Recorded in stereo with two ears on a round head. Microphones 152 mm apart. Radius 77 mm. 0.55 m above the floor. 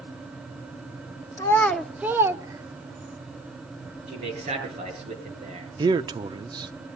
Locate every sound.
1.4 s a child speaking: 20° left (ahead or behind), 0.8 m; by 3.2 s 25° right (ahead or behind), 1.8 m
4.1 s a man speaking: 35° right (ahead or behind), 7 m
5.8 s a man speaking: 25° right (ahead or behind), 0.6 m